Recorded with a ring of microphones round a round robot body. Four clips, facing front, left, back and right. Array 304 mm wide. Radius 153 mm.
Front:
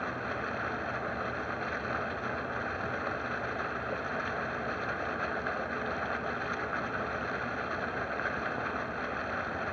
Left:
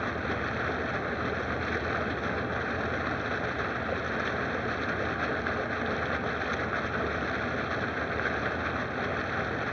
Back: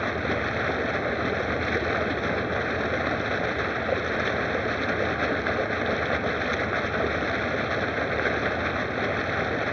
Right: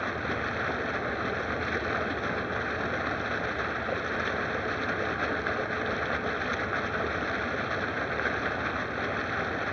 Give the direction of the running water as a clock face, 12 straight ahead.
6 o'clock.